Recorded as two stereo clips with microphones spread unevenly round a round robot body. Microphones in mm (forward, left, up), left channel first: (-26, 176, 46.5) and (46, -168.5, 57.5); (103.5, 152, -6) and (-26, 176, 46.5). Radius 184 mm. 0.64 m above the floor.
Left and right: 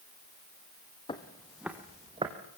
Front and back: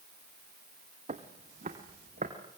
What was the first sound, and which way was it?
Footsteps, straight behind.